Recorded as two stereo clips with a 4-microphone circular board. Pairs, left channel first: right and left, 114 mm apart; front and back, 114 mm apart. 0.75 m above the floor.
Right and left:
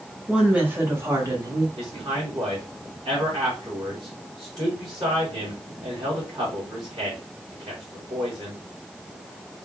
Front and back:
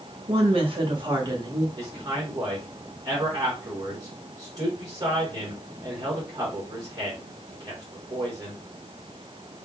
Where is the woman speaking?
170° left, 1.8 m; by 1.7 s 130° left, 1.3 m.